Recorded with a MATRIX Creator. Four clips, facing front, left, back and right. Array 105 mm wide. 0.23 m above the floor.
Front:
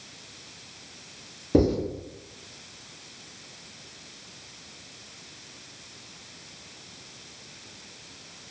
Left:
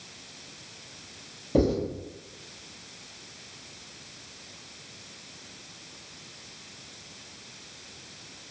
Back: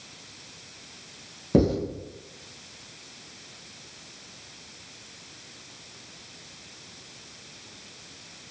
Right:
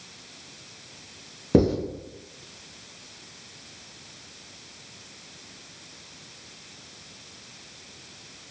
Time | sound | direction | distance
1.5 | writing | 105° right | 1.3 m